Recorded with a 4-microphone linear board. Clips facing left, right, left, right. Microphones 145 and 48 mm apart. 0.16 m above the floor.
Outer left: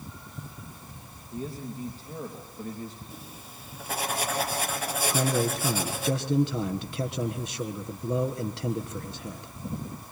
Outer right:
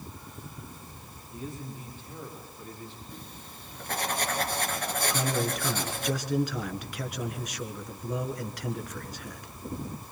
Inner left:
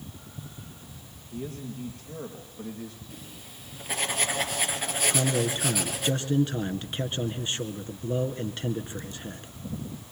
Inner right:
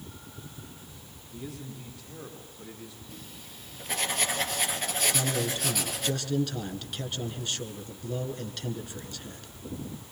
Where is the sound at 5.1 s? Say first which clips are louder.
Outer left 5 dB, inner left 3 dB; 30° left (ahead or behind), 1.7 m.